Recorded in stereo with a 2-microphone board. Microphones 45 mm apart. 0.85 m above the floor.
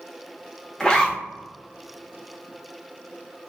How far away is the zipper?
About 0.9 m.